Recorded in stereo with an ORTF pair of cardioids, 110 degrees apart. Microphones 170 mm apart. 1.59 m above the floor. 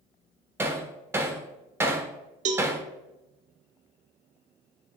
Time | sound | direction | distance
0.6 | hammering | 15° right | 1.1 m
2.5 | a cowbell | 50° right | 1.1 m